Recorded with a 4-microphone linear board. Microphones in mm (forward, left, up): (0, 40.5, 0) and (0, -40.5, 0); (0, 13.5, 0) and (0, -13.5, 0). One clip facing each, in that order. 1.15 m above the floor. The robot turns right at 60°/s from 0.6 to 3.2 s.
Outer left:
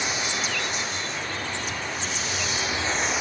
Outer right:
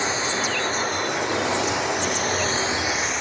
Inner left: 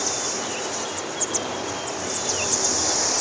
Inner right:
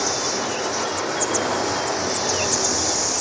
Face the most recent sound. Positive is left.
turn(degrees=10)